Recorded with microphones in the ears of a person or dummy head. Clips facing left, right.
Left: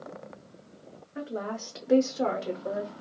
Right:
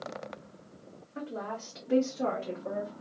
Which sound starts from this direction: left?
A woman speaking, at 1.1 s.